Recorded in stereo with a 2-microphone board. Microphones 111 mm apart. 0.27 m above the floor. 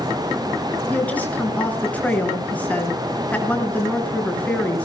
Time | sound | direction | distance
0.9 | a woman speaking | 15° left (ahead or behind) | 4.5 m